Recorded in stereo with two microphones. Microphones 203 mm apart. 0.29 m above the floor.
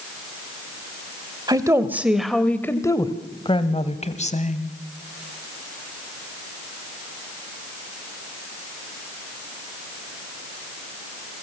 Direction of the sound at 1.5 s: 20° right (ahead or behind).